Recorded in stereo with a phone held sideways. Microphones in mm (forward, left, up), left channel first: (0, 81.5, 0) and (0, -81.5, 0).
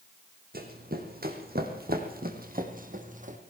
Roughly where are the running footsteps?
Right.